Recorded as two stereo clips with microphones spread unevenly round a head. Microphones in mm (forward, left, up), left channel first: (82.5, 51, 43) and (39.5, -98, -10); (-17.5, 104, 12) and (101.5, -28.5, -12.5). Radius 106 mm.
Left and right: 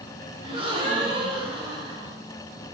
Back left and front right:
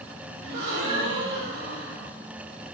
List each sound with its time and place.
0.4 s a gasp: 40° right, 0.8 m